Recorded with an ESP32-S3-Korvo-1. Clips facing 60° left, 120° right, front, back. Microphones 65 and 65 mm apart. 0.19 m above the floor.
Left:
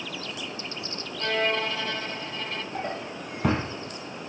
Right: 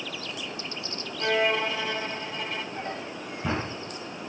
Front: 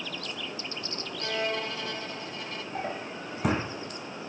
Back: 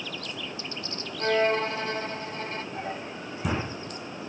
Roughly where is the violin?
Behind.